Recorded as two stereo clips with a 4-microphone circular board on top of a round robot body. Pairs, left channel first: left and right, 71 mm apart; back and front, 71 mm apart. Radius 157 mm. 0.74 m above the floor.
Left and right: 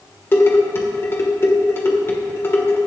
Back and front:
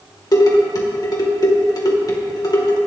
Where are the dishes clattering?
150° left, 2 m.